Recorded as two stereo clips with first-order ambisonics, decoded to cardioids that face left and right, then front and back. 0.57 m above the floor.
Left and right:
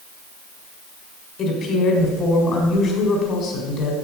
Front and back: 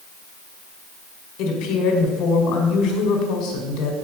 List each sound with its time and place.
1.4 s a woman speaking: 30° left, 1.9 m